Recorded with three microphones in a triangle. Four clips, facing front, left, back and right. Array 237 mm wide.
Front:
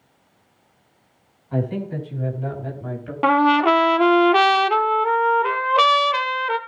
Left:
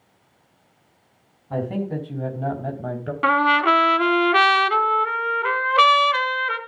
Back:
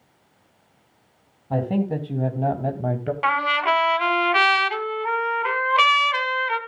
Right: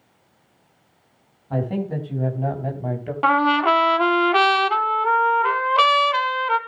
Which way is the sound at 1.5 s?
Straight behind.